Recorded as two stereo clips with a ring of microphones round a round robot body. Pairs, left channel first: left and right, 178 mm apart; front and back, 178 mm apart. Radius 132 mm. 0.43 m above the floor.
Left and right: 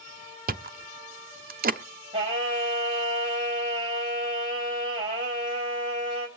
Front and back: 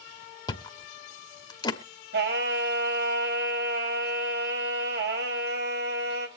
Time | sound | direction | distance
0.5 | chewing | 65° right | 1.0 m
2.1 | singing | 155° right | 3 m